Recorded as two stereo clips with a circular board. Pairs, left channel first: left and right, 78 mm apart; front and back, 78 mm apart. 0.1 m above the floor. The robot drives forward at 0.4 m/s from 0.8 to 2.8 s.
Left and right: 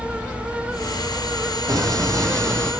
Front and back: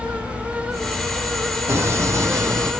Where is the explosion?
125° right, 1.3 m; by 2.7 s 135° right, 1.6 m.